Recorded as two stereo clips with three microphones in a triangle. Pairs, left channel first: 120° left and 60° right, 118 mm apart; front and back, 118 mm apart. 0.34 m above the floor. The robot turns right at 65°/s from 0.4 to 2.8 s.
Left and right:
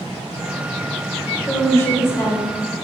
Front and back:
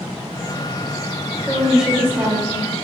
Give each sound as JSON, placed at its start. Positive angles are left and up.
{"t": 1.5, "sound": "a woman speaking", "azimuth_deg": 90, "distance_m": 1.0}